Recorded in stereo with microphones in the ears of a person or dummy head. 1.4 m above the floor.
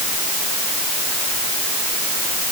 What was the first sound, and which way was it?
Only background noise.